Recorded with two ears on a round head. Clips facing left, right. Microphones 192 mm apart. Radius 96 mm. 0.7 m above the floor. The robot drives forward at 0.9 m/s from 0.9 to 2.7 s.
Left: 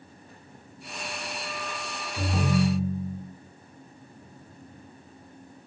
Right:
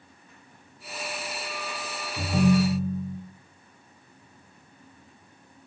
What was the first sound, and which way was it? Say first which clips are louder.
A ringtone: right 4 dB; 15° right (ahead or behind).